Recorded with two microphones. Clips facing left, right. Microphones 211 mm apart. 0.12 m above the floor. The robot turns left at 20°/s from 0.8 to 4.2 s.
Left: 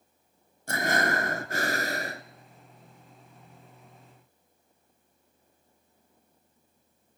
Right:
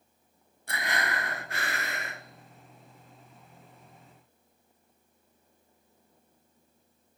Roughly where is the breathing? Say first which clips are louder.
Left 7 dB; left.